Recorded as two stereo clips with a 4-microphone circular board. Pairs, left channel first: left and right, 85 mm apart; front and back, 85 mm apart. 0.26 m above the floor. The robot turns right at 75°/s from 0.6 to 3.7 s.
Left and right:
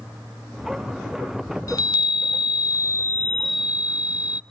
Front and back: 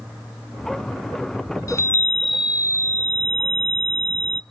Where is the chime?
45° left, 0.5 m; by 4.4 s 165° right, 0.5 m.